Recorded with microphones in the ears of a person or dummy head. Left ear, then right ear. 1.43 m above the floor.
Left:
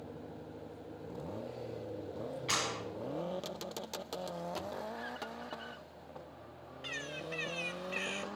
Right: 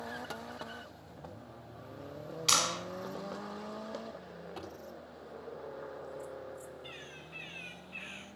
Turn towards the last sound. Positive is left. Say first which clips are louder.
# left 7 dB
turn(degrees=70)  # may be behind; listen again after turning